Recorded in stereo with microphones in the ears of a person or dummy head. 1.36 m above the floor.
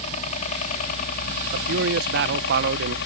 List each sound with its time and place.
0.0 s a helicopter: 40° left (ahead or behind); by 3.1 s 60° left (ahead or behind)
1.5 s a man speaking: 60° right (ahead or behind)